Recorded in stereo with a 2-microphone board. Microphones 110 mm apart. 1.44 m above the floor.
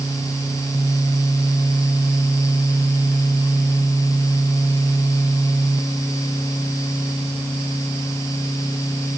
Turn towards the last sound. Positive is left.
No sound to turn to.